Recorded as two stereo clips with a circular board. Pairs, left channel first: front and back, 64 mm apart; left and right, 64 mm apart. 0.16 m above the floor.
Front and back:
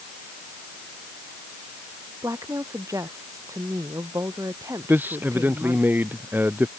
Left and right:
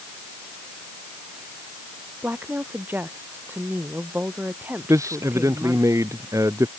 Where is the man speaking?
120° right.